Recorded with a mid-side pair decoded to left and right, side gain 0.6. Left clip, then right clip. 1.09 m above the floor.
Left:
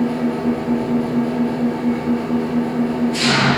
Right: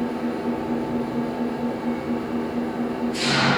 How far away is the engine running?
About 7.5 m.